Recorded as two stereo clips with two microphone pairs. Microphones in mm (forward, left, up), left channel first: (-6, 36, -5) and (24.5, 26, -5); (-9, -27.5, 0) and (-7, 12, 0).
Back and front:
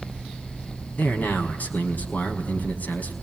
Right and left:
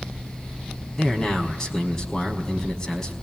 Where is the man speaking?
165° right, 5 m.